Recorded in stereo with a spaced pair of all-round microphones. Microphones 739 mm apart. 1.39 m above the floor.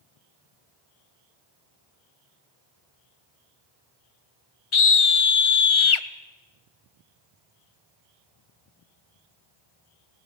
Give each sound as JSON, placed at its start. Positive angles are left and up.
{"t": 4.7, "sound": "a scream", "side_deg": 45, "distance_m": 0.6}